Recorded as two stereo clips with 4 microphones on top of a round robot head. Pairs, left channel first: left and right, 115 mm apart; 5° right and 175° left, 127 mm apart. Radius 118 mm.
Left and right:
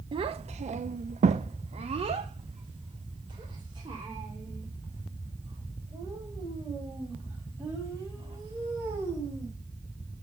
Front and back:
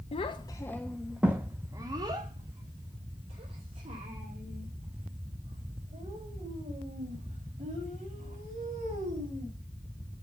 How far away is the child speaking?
About 0.6 m.